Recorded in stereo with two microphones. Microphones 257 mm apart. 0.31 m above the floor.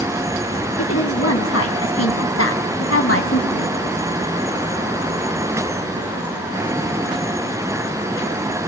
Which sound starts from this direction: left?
A woman speaking, at 0.8 s.